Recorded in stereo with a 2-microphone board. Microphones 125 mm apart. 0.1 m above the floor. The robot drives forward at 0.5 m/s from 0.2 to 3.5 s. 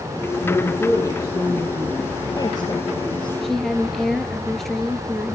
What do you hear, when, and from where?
0.4 s a woman speaking: 25° left (ahead or behind), 3 m; by 3.3 s 40° left (ahead or behind), 1.9 m
3.4 s a woman speaking: centre (ahead or behind), 1.5 m